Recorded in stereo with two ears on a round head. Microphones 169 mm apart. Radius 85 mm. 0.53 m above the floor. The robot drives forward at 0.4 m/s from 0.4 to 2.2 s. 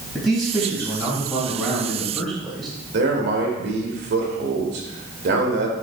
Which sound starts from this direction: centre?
A man speaking, at 0.1 s.